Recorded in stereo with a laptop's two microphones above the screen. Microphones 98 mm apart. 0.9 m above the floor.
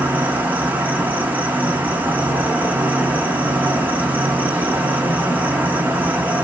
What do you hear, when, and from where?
0.0 s an insect: 20° right (ahead or behind), 0.7 m